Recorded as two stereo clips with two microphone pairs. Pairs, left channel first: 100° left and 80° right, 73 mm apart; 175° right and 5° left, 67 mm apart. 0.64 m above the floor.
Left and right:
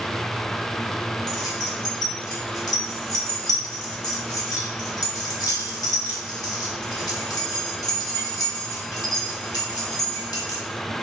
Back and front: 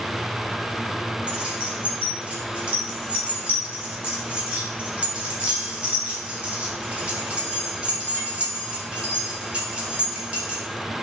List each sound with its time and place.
1.3 s keys jangling: 75° left, 1.3 m